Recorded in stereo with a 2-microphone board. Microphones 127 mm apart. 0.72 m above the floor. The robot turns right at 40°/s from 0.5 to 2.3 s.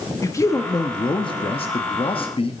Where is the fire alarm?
No fire alarm in this recording.